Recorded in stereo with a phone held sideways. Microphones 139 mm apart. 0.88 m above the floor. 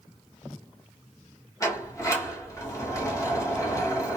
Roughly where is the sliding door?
Left.